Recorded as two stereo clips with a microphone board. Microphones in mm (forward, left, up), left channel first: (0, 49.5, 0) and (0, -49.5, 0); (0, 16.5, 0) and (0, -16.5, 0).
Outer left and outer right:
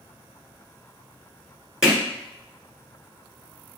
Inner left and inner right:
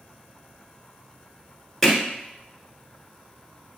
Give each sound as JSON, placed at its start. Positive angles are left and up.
{"t": 1.8, "sound": "hammering", "side_deg": -5, "distance_m": 1.4}